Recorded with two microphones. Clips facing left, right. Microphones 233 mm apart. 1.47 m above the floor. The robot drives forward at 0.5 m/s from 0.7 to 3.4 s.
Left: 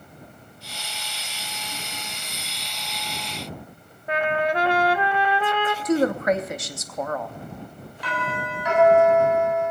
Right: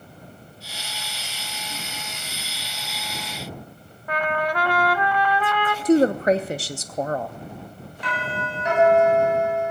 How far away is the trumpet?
About 0.7 m.